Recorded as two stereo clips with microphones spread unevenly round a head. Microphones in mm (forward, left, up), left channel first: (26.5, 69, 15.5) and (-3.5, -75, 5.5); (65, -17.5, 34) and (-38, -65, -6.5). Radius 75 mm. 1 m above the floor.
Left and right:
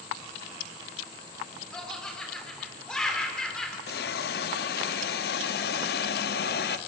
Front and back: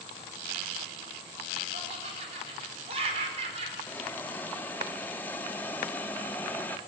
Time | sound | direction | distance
1.7 | laughter | 165° left | 3.5 m
3.9 | a hiss | 95° left | 0.7 m